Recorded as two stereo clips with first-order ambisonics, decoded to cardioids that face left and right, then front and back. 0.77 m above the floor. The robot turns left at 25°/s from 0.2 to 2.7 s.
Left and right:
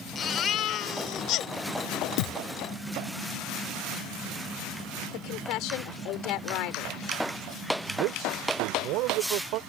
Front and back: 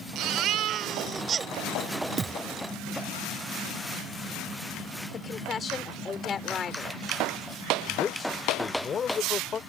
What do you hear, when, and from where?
0.1 s a baby crying: 145° left; by 1.5 s 115° left
2.2 s a thud: 110° left; by 2.4 s 105° left
5.1 s a woman speaking: 70° left
7.9 s a man speaking: 65° right